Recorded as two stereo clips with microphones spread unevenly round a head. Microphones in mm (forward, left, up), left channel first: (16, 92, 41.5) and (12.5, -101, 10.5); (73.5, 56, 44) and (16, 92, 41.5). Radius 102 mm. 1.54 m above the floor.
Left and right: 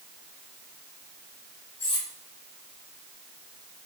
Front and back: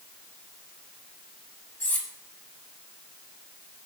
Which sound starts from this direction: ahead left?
Cutlery clinking, at 1.8 s.